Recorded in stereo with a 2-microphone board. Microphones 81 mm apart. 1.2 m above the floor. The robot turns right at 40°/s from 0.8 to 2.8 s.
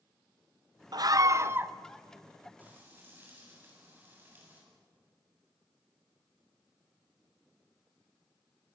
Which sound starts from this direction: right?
Frying, at 2.6 s.